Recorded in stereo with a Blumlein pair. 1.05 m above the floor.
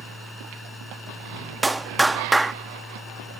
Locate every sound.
0.0 s a machine running: 5° left
1.6 s a clap: 5° right